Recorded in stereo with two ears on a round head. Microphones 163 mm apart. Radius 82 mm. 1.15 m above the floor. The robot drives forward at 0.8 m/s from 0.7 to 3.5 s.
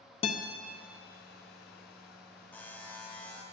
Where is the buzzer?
10° left (ahead or behind), 0.9 m; by 3.4 s 5° left (ahead or behind), 1.3 m.